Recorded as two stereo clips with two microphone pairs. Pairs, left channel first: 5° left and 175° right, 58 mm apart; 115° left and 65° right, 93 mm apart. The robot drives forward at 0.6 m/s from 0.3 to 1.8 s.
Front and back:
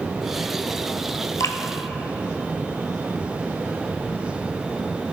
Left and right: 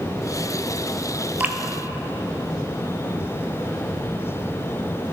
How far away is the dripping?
About 0.7 m.